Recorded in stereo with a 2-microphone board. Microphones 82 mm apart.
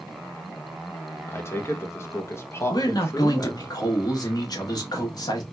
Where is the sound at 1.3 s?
35° left (ahead or behind), 0.7 m.